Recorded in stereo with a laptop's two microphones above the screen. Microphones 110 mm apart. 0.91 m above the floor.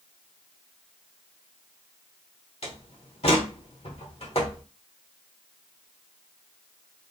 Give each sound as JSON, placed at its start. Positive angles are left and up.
{"t": 2.6, "sound": "a door slam", "side_deg": 70, "distance_m": 1.6}